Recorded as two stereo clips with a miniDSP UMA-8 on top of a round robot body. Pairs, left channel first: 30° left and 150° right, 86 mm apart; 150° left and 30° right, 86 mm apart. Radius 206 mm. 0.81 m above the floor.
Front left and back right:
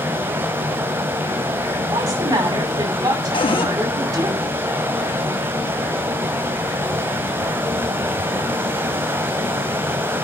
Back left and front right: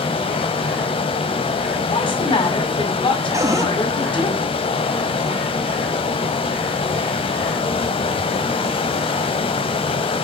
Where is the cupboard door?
20° left, 2.5 m.